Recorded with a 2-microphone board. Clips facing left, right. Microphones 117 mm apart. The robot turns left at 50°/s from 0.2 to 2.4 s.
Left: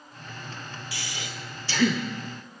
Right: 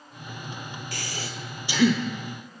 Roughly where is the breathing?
Right.